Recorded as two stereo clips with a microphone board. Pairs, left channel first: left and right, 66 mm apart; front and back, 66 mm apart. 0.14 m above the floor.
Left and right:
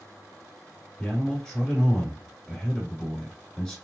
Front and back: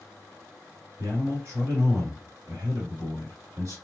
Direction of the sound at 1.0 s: 165° left.